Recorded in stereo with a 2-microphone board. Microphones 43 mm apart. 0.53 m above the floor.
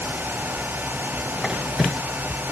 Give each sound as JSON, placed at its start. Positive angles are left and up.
{"t": 1.4, "sound": "a squeak", "side_deg": -10}